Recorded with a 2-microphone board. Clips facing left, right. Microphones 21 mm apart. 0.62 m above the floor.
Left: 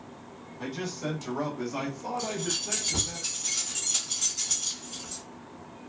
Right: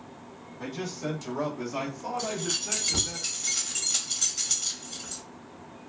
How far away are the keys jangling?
About 1.0 m.